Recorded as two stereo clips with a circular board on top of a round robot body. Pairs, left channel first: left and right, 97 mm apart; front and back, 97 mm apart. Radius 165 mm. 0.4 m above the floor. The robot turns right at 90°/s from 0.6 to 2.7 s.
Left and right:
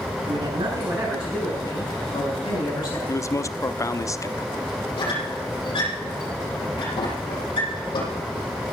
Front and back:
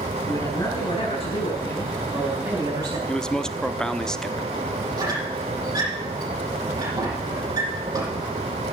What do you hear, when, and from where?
0.3 s a man speaking: 55° right, 7.5 m; by 3.0 s 135° left, 7.5 m
3.1 s a man speaking: 75° left, 1.1 m
5.0 s a squeak: 130° left, 7 m